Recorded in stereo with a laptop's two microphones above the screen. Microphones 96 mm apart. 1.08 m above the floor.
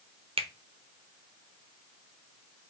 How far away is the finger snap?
About 0.5 m.